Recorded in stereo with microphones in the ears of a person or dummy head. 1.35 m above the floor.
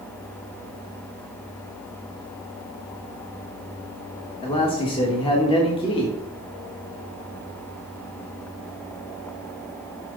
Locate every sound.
4.4 s a man speaking: 20° left (ahead or behind), 1.5 m